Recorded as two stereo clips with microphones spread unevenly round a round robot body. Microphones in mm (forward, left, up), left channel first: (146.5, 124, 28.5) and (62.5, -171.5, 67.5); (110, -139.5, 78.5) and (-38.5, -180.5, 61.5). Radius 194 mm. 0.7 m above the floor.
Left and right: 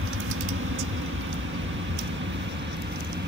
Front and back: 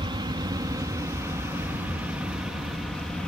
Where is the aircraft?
140° right; by 3.3 s 70° right.